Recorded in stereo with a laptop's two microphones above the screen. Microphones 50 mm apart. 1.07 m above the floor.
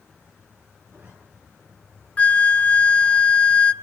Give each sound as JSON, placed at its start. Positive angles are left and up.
{"t": 0.9, "sound": "a zipper", "side_deg": -45, "distance_m": 8.0}
{"t": 2.2, "sound": "a flute", "side_deg": 25, "distance_m": 0.8}